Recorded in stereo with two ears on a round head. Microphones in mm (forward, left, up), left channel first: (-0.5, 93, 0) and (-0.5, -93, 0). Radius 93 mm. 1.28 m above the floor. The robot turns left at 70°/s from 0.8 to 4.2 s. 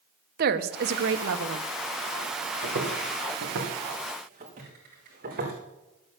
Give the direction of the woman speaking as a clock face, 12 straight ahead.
2 o'clock.